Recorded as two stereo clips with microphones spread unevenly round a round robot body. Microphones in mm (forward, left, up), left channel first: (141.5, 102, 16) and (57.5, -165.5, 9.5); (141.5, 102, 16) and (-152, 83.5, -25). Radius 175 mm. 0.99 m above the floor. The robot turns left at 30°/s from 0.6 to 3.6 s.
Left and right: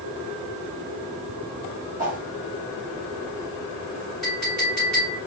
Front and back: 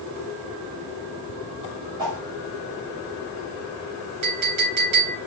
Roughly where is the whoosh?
Behind.